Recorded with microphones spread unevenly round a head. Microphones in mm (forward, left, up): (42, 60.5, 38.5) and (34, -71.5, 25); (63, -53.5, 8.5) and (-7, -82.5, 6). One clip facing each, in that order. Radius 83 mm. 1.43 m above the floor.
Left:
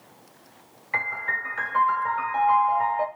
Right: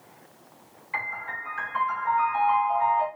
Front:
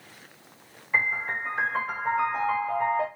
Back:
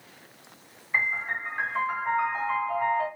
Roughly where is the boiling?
I don't hear boiling.